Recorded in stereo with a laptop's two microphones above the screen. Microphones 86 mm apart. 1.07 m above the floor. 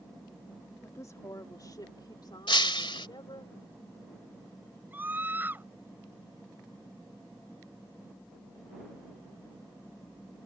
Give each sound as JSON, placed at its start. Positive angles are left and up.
{"t": 0.8, "sound": "a woman speaking", "side_deg": 35}
{"t": 2.5, "sound": "breaking glass", "side_deg": 75}
{"t": 4.9, "sound": "a scream", "side_deg": -25}